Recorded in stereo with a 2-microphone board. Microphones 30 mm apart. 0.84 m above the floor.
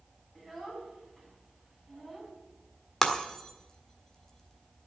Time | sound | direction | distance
0.3 | a child speaking | 10° right (ahead or behind) | 4.5 m
3.0 | breaking glass | 15° left (ahead or behind) | 1.5 m